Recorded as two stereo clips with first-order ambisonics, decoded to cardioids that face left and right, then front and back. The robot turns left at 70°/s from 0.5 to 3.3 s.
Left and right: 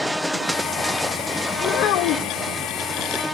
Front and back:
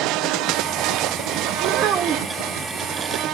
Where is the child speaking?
145° left, 0.6 m; by 2.4 s 85° left, 0.6 m.